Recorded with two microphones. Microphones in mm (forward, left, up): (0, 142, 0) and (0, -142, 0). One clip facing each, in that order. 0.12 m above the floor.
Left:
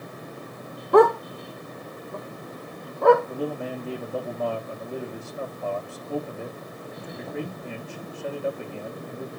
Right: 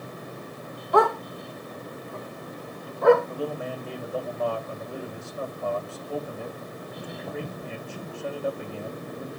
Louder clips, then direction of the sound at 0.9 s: Left 6 dB; 55° left (ahead or behind).